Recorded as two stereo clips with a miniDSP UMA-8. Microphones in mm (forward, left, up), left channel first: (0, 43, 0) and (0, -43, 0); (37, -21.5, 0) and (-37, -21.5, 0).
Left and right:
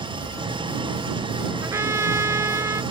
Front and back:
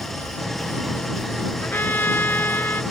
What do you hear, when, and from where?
0.0 s an engine running: 85° right
1.6 s a trumpet: 50° right